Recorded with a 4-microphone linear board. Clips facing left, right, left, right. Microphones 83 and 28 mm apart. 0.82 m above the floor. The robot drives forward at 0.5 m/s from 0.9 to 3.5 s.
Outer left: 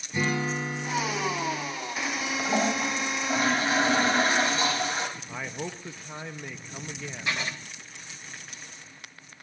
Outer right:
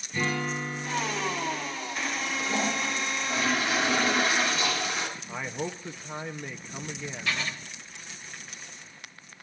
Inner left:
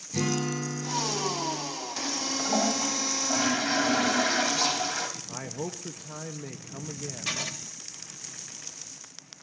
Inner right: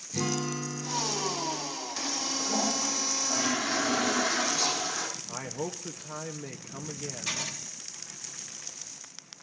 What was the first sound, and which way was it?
A guitar, 15° left (ahead or behind).